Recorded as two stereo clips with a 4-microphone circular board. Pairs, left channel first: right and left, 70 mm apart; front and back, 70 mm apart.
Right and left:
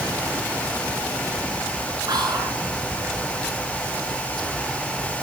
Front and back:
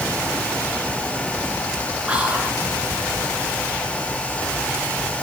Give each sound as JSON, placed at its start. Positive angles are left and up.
{"t": 2.1, "sound": "whispering", "azimuth_deg": 105, "distance_m": 2.5}